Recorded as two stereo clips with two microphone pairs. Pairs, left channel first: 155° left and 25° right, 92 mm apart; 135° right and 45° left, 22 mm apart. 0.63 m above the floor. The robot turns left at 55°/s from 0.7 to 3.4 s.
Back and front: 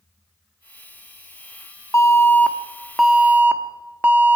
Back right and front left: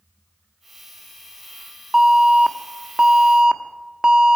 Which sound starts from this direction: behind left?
An alarm, at 1.9 s.